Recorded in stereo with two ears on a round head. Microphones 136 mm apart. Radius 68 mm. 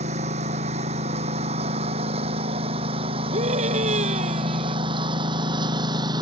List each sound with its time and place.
0.0 s a lawn mower: 45° right (ahead or behind); by 6.2 s 30° right (ahead or behind)
3.3 s a scream: 45° right (ahead or behind)